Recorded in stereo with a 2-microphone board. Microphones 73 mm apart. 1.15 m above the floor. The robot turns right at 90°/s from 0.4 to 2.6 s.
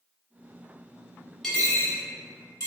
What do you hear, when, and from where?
1.4 s a dropped coin: 5° left (ahead or behind), 1.1 m; by 2.7 s 50° left (ahead or behind), 1.1 m